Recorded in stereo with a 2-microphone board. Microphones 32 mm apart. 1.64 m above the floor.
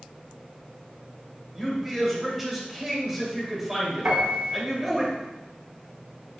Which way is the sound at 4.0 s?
60° right (ahead or behind).